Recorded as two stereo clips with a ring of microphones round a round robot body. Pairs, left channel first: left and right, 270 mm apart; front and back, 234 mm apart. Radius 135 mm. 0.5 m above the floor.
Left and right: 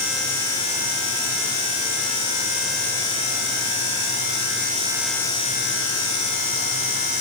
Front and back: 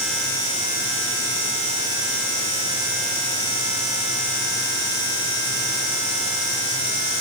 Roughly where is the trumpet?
No trumpet in this recording.